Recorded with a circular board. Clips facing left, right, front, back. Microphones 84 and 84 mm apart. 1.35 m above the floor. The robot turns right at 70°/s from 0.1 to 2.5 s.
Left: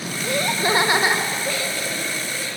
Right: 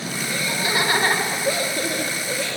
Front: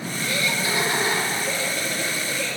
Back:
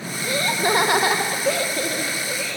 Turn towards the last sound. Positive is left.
turn(degrees=-90)